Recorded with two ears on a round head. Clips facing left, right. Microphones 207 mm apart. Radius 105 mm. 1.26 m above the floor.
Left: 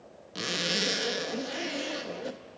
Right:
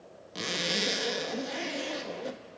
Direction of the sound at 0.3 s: 5° left (ahead or behind).